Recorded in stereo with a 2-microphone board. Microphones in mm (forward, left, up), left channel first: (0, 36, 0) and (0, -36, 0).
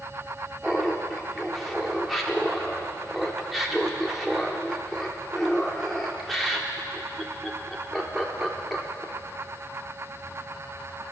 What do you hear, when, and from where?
0.6 s laughter: centre (ahead or behind), 1.0 m